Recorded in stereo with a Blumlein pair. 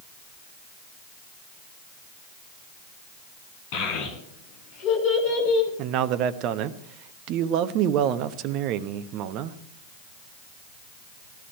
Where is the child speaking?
50° left, 8 m; by 5.7 s 40° left, 9 m.